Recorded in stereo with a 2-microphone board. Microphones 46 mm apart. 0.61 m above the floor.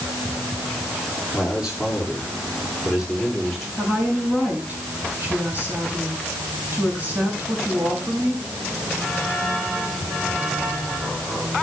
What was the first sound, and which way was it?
A man speaking, 10° right (ahead or behind).